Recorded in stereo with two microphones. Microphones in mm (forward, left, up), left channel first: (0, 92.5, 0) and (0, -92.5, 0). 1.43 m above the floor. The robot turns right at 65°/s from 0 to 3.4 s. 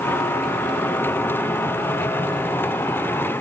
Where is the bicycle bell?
I don't hear a bicycle bell.